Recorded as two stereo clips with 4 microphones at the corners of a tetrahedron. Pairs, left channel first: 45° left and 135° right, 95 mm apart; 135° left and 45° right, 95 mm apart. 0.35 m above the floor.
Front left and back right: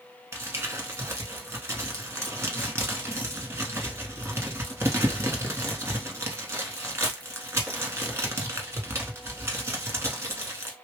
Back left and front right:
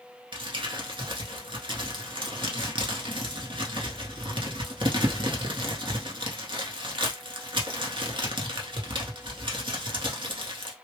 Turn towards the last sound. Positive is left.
turn(degrees=-75)